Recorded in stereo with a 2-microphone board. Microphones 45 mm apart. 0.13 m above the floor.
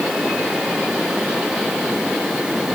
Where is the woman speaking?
I don't hear a woman speaking.